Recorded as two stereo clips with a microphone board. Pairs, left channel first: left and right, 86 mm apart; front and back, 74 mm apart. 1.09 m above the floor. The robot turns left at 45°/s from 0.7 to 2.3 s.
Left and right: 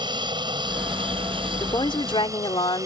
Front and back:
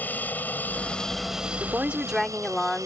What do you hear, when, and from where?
0.0 s an aircraft: 65° right; by 2.9 s 140° right
1.6 s a woman speaking: 120° left; by 2.9 s 85° left